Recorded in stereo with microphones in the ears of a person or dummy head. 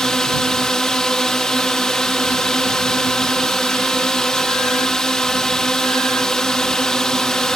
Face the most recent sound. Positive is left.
turn(degrees=5)  # may be behind; listen again after turning